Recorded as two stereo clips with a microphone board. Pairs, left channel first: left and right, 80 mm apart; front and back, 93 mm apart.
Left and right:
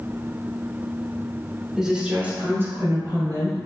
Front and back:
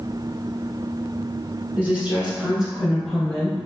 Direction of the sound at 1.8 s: 170° right.